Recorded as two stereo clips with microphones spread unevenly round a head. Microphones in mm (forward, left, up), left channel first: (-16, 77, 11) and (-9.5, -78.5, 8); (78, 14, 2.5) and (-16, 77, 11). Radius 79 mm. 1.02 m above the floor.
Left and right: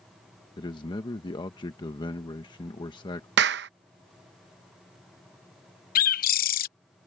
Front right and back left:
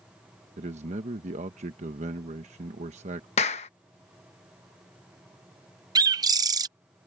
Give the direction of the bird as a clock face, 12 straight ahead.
9 o'clock.